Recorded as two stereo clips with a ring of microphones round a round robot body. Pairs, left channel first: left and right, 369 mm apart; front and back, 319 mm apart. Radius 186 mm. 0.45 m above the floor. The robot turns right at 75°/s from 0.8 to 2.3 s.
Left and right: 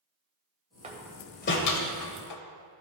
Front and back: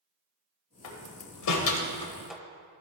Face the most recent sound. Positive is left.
turn(degrees=90)